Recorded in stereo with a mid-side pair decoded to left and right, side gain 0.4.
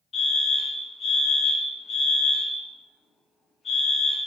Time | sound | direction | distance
0.1 | a fire alarm | 55° left | 4 m